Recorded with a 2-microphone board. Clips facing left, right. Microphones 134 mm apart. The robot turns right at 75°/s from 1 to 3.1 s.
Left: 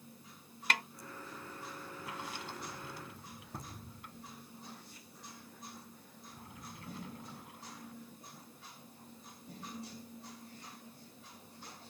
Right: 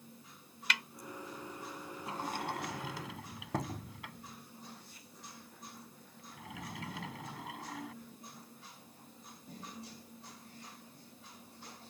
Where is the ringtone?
No ringtone in this recording.